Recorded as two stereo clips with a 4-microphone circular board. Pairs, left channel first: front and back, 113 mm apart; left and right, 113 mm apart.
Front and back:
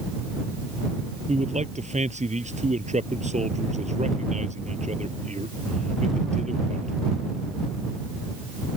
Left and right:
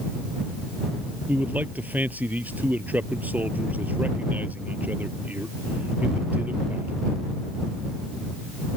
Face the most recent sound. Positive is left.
turn(degrees=-165)